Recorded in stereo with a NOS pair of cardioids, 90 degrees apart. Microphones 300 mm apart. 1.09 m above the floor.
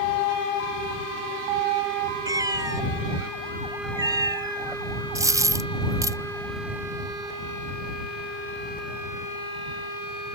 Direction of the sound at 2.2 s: 10° right.